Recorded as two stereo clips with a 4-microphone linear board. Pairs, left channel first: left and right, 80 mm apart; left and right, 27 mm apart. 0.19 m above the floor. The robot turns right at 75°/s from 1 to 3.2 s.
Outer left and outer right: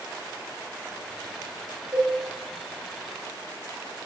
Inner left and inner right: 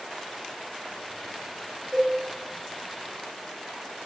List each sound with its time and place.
1.9 s a cowbell: 20° right (ahead or behind), 0.8 m; by 2.1 s 10° right (ahead or behind), 0.8 m